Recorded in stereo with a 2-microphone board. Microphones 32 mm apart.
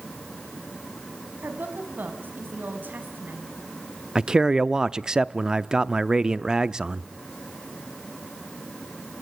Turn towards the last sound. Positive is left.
turn(degrees=-20)  # may be behind; listen again after turning